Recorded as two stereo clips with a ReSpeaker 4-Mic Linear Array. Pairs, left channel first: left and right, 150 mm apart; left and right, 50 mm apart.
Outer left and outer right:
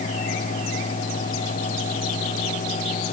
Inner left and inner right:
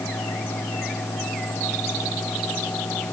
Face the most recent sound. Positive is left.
No sound to turn to.